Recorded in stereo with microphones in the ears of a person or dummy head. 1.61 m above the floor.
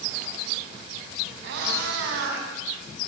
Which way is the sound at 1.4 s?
70° right (ahead or behind).